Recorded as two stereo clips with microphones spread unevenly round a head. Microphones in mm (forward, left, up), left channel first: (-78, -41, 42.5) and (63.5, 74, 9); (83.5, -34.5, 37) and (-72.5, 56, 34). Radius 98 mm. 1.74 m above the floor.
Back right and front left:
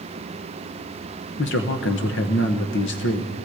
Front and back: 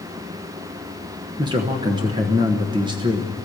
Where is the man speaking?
145° right, 1.1 m.